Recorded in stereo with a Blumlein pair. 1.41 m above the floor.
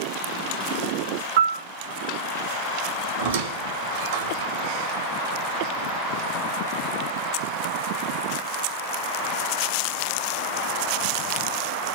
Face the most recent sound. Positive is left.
turn(degrees=-60)